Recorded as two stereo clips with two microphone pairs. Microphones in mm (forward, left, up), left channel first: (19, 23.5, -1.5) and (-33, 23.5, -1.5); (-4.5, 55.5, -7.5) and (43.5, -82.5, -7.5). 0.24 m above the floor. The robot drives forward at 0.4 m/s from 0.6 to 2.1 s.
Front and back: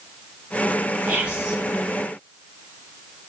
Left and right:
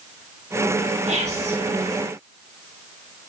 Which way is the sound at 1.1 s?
105° right.